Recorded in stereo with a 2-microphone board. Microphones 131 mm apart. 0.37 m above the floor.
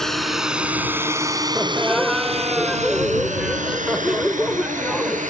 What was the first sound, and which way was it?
A drone, centre (ahead or behind).